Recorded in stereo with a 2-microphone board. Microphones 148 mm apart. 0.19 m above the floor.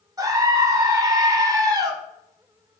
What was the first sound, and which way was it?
A scream, 25° right (ahead or behind).